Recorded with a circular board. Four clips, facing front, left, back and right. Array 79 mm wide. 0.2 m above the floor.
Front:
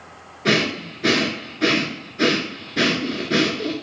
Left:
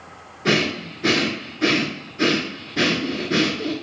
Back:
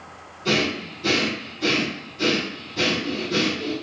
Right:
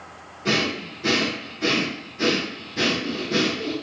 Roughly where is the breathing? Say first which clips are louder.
Left 3 dB, front 3 dB; ahead left.